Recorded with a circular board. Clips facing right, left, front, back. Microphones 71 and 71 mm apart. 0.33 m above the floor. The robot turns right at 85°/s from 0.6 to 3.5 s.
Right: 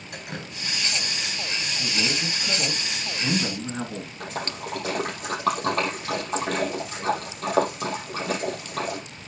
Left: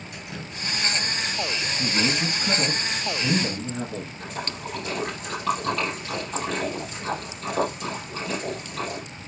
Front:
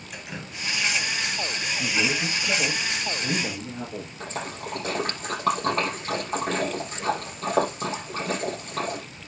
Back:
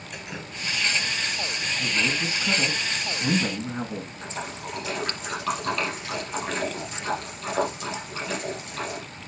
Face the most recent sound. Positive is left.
turn(degrees=-50)